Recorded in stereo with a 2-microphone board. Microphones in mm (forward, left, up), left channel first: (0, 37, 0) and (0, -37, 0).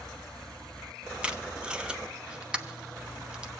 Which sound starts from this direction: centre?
Tape being pulled, at 1.2 s.